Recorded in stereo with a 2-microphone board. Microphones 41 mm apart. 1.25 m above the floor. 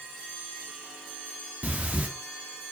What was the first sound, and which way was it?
Breathing, 35° right (ahead or behind).